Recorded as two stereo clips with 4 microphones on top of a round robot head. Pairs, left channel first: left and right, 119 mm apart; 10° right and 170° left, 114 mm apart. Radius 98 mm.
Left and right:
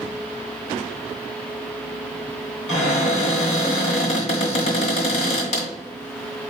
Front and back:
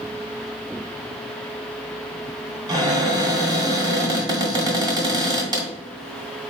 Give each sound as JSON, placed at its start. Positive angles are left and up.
{"t": 2.7, "sound": "a cupboard door", "azimuth_deg": 120, "distance_m": 1.4}